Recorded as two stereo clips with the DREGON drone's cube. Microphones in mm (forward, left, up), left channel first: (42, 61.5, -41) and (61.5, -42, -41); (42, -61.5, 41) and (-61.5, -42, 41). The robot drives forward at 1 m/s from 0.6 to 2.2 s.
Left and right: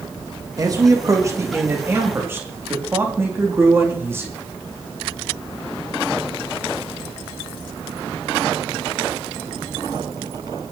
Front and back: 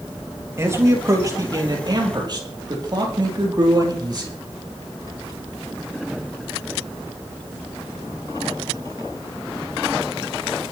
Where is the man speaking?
130° right, 3.5 m; by 4.3 s 145° right, 4.5 m.